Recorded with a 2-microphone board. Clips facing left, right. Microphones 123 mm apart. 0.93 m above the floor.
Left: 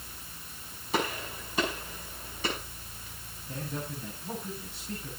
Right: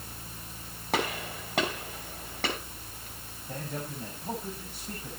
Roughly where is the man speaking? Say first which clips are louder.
Even; right.